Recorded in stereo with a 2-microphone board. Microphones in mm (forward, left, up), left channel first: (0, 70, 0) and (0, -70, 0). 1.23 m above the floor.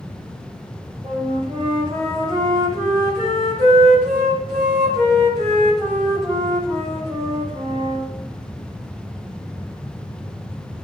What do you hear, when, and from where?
1.0 s a flute: 40° right (ahead or behind), 7 m